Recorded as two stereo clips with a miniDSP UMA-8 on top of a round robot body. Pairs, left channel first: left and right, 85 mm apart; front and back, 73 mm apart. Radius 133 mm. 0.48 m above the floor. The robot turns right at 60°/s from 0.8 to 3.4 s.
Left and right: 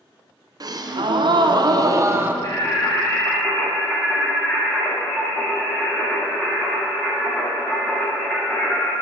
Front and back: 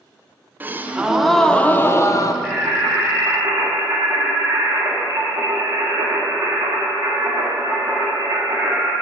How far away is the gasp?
About 0.6 m.